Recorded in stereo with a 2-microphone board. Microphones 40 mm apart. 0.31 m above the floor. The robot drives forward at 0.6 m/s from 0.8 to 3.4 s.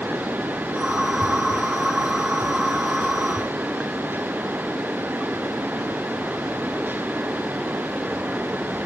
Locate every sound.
Only background noise.